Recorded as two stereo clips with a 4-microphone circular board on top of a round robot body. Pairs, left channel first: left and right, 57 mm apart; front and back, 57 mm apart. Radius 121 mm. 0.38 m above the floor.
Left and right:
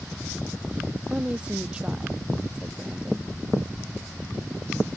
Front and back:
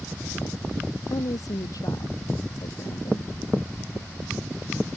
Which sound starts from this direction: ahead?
A woman speaking, at 1.1 s.